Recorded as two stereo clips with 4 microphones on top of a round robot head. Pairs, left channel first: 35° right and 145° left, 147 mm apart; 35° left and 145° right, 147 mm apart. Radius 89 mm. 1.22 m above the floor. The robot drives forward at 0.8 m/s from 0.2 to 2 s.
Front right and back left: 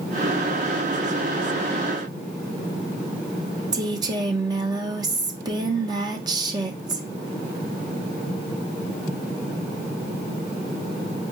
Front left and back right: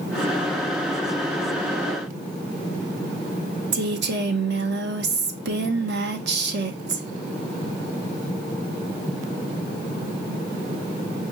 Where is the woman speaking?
150° right, 0.8 m.